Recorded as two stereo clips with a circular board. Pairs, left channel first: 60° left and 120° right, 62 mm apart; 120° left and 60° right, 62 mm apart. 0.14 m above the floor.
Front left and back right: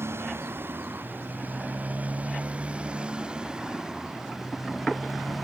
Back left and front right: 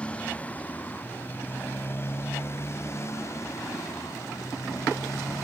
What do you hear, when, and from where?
0.0 s a motorcycle: 170° right; by 5.5 s 150° left